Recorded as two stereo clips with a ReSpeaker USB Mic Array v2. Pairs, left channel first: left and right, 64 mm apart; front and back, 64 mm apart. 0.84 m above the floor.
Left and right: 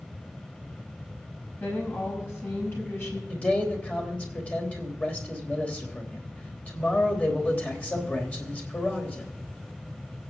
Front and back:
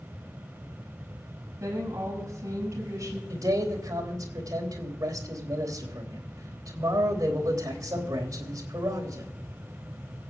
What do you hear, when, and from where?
1.6 s a woman speaking: 140° left, 5.5 m
3.3 s a man speaking: 155° left, 3.5 m